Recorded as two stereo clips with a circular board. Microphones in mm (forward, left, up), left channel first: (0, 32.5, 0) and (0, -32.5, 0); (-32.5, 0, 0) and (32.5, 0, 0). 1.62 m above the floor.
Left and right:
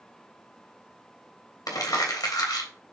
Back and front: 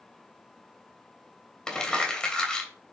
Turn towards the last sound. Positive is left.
turn(degrees=105)